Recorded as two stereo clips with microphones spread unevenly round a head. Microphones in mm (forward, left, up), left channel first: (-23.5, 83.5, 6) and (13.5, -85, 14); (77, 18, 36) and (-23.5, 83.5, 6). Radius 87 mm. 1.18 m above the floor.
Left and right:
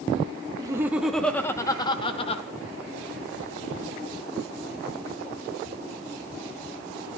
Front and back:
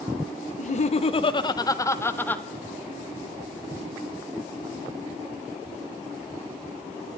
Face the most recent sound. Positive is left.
turn(degrees=45)